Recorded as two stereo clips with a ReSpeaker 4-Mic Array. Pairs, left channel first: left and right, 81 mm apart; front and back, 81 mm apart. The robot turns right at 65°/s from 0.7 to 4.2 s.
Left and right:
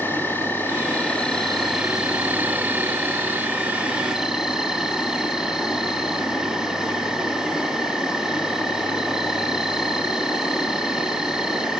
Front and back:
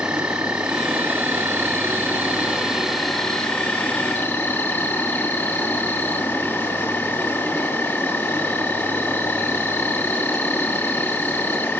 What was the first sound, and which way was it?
An insect, 115° left.